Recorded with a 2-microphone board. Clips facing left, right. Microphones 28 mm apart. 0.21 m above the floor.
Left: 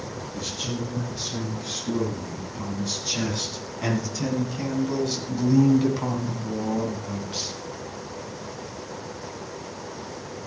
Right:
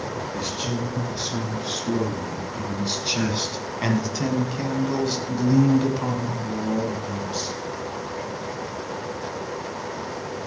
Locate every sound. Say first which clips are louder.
0.3 s a man speaking: right 1 dB; 50° right (ahead or behind), 5 m; by 7.5 s 20° left (ahead or behind), 3 m